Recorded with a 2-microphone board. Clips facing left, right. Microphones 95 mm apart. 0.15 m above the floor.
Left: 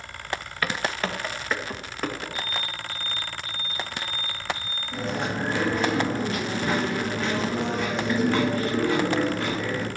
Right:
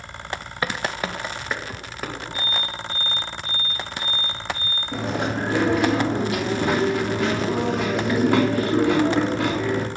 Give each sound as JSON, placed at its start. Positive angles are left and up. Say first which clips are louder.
{"t": 0.6, "sound": "footsteps", "louder": "right 2 dB", "side_deg": -25, "distance_m": 1.1}
{"t": 2.3, "sound": "an alarm", "louder": "right 3 dB", "side_deg": -60, "distance_m": 5.5}
{"t": 4.9, "sound": "chewing", "louder": "right 3 dB", "side_deg": -90, "distance_m": 3.0}